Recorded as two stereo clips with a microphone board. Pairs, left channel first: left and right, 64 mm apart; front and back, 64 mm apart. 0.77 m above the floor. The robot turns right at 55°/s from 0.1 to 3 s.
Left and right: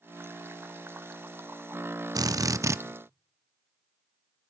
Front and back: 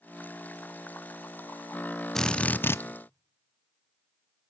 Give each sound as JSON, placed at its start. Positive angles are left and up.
{"t": 2.1, "sound": "a drill", "azimuth_deg": -85, "distance_m": 0.6}